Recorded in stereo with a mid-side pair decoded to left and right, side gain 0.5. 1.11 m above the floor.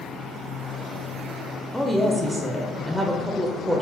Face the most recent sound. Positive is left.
turn(degrees=-5)